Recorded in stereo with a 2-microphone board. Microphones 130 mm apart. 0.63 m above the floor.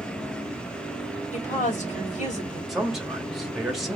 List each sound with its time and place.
1.3 s a woman speaking: 70° left (ahead or behind), 2.5 m
2.7 s a man speaking: 5° right (ahead or behind), 1.4 m